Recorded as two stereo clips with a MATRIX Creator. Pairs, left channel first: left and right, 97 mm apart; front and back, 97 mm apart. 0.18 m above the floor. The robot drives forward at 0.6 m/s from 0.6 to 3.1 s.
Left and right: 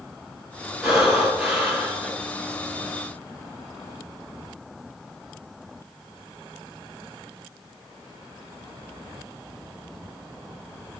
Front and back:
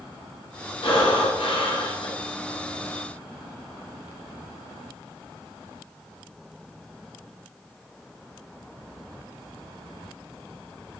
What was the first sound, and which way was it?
Breathing, 5° right.